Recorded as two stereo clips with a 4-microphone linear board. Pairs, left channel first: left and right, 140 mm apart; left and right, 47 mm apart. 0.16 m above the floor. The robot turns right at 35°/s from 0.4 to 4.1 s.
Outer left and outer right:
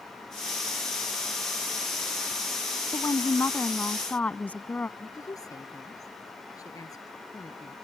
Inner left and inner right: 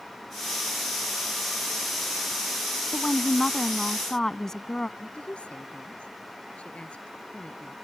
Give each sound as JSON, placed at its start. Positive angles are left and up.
{"t": 2.9, "sound": "a woman speaking", "side_deg": 25}
{"t": 5.0, "sound": "a woman speaking", "side_deg": 25}